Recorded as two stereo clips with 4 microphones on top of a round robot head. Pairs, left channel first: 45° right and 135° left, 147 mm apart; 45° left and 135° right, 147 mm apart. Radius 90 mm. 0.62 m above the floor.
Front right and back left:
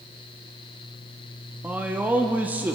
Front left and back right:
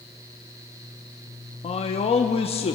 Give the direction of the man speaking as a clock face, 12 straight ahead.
10 o'clock.